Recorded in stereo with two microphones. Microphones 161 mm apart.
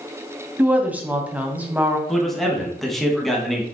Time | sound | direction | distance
0.6 | a woman speaking | 10° right (ahead or behind) | 1.9 m
2.1 | a man speaking | centre (ahead or behind) | 2.5 m